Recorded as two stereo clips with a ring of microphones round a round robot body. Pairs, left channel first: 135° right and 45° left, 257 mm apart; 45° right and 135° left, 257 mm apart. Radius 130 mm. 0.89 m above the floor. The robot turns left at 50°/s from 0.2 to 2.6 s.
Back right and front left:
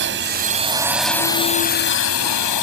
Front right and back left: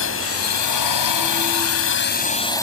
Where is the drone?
5° right; by 2.6 s 125° right.